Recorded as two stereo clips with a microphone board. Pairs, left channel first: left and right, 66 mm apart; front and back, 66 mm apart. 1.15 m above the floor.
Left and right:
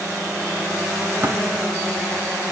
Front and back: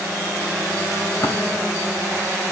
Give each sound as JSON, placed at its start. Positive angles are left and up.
{"t": 1.2, "sound": "tapping", "azimuth_deg": -35, "distance_m": 4.5}